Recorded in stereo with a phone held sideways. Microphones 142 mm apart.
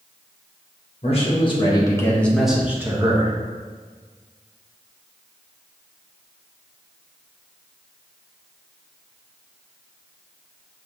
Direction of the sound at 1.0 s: 45° left (ahead or behind).